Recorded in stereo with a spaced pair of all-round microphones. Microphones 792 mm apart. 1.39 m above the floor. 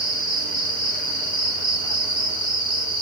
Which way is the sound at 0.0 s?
60° left (ahead or behind).